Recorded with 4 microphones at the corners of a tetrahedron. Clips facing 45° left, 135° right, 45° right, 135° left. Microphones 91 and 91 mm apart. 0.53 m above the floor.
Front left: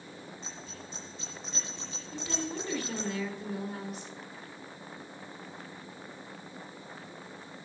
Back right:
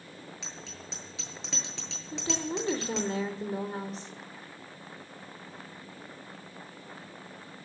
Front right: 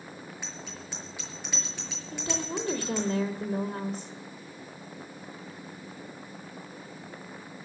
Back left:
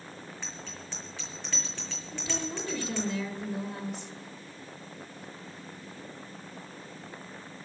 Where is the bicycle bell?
120° right, 7.5 m.